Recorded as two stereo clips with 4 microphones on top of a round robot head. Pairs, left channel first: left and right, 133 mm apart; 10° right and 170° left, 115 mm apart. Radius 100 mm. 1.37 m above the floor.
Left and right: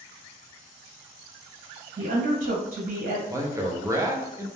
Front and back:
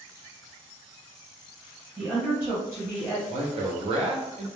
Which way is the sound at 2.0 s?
110° right.